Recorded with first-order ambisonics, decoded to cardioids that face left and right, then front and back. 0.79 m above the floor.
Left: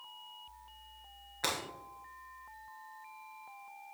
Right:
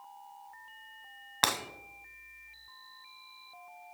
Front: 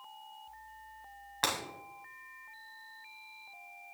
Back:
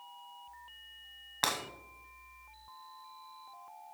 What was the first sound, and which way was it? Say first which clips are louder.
Breaking glass: right 6 dB, even; 95° right.